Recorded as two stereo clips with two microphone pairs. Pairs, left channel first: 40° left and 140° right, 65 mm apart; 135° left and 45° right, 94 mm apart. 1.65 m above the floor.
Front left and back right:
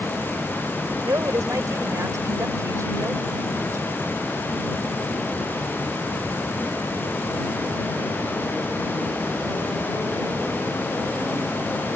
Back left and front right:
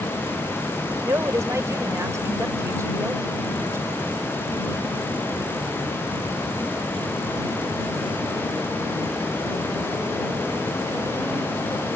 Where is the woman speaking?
105° right.